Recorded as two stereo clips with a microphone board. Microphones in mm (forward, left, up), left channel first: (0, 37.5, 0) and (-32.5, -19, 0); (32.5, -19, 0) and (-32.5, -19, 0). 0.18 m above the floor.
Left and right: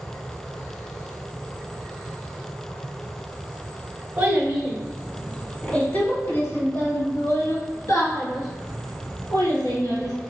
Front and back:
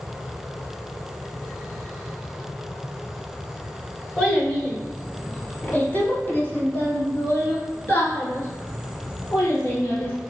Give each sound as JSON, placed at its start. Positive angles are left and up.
{"t": 4.2, "sound": "a child speaking", "azimuth_deg": -80, "distance_m": 0.9}